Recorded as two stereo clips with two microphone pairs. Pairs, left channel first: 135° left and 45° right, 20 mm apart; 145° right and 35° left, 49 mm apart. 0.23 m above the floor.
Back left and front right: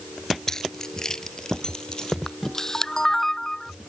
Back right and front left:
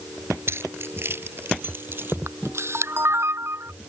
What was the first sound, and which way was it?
Keys jangling, 65° left.